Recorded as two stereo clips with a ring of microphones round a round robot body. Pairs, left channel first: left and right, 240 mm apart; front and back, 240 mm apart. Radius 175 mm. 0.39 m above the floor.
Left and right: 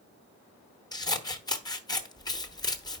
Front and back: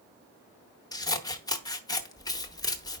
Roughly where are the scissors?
Ahead left.